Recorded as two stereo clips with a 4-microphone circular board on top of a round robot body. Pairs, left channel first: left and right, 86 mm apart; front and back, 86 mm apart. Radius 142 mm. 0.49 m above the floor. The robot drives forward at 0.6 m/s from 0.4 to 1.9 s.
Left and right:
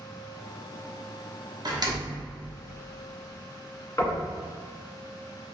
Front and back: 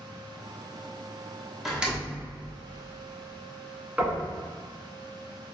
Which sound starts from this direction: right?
A door slam, at 1.6 s.